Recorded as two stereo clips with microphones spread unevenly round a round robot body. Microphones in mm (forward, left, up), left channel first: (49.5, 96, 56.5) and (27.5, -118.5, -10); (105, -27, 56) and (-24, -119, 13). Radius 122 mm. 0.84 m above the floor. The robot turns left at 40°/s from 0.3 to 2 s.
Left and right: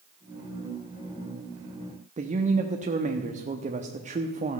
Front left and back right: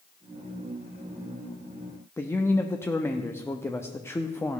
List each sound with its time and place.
2.2 s a man speaking: 45° right, 1.0 m